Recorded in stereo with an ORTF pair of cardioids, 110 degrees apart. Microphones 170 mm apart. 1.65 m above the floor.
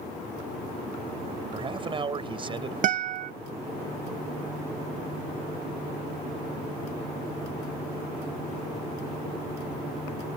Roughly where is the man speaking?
Ahead right.